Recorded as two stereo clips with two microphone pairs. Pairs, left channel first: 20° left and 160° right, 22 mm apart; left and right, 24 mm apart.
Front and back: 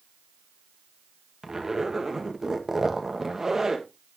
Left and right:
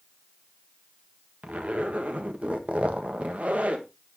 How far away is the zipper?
About 1.5 m.